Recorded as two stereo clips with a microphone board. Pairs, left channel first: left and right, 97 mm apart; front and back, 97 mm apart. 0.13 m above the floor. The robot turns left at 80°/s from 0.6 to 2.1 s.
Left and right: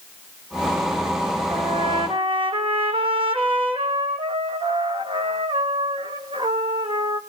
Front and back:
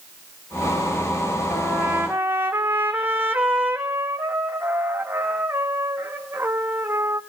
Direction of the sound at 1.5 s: 65° right.